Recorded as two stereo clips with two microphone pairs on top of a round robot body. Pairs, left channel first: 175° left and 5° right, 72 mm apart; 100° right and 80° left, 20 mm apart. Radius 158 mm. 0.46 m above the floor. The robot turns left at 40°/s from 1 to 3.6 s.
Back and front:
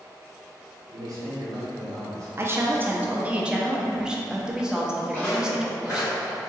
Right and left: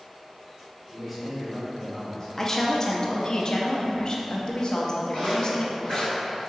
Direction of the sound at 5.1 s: 115° right.